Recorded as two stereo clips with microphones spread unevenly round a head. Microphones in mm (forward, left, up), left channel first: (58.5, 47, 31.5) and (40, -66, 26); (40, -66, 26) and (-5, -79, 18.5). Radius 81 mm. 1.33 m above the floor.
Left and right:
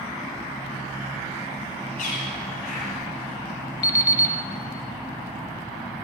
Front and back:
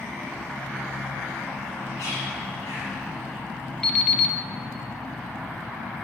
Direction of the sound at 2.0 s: 75° left.